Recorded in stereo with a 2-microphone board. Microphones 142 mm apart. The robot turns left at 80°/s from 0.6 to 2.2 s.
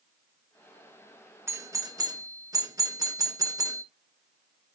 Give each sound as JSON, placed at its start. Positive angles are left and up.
{"t": 1.5, "sound": "a doorbell", "side_deg": -20, "distance_m": 1.1}